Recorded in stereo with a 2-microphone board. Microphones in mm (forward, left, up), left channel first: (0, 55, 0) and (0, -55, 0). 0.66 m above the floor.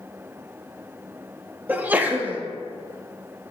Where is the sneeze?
15° right (ahead or behind), 0.9 m.